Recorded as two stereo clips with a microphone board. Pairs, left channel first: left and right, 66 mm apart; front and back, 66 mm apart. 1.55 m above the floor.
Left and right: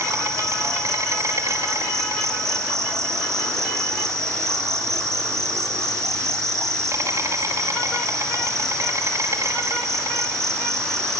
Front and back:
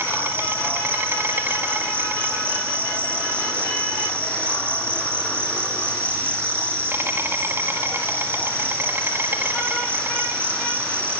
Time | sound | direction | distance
0.0 | an insect | 125° right | 4.5 m